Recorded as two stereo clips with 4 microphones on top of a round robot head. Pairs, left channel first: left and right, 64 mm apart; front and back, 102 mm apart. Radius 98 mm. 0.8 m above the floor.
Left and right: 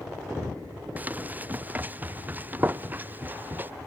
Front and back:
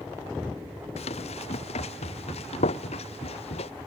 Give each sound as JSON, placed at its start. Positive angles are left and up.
{"t": 1.0, "sound": "running footsteps", "azimuth_deg": -25}